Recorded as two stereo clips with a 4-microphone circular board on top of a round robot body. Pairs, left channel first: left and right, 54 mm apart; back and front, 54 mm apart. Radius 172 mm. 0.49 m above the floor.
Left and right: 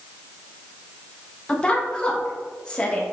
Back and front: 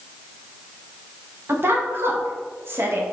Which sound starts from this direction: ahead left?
A woman speaking, at 1.5 s.